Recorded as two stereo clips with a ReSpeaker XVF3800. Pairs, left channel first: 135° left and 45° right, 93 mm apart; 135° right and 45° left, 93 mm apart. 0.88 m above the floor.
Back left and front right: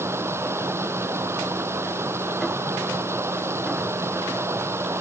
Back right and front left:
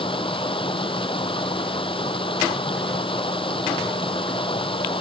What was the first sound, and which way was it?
Running water, 110° right.